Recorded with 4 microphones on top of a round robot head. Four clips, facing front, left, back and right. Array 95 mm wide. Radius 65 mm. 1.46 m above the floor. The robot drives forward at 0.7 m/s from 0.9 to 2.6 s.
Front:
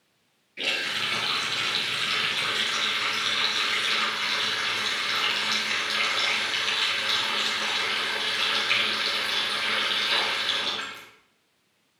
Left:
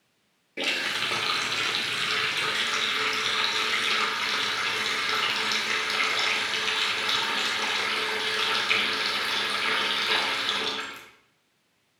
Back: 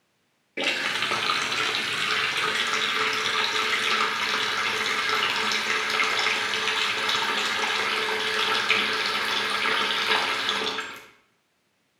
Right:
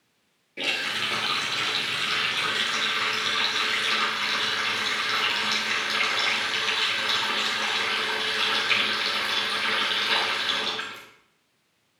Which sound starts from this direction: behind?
A running tap, at 0.6 s.